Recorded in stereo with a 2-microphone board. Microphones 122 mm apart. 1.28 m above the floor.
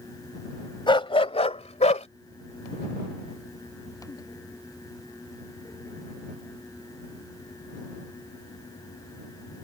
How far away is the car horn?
No car horn in this recording.